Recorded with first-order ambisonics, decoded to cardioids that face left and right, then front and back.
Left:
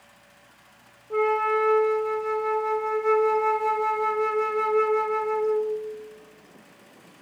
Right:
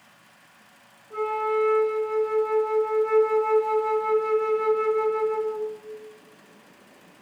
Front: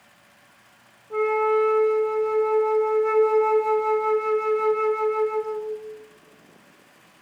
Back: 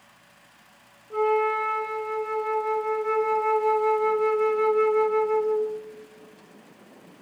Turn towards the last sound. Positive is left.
turn(degrees=80)